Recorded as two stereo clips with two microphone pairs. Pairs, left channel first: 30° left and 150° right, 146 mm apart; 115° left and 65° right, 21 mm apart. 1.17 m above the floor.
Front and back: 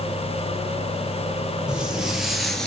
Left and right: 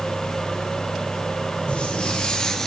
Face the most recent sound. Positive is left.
turn(degrees=105)